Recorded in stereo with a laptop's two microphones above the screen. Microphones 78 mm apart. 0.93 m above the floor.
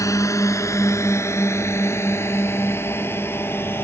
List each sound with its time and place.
0.0 s a drone: 45° left (ahead or behind); by 3.9 s 30° left (ahead or behind)